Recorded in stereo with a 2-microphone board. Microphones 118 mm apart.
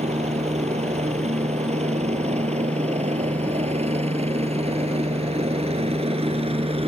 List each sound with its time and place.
0.0 s a helicopter: 70° right (ahead or behind); by 6.9 s 55° right (ahead or behind)